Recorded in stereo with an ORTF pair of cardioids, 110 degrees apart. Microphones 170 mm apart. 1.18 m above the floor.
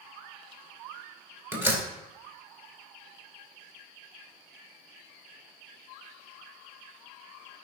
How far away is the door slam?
About 3.5 m.